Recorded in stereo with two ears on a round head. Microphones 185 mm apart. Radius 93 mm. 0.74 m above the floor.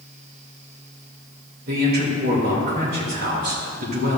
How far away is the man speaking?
About 2.5 m.